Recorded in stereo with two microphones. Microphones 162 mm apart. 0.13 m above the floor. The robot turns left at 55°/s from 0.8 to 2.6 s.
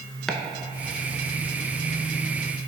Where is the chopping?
Centre (ahead or behind), 0.5 m.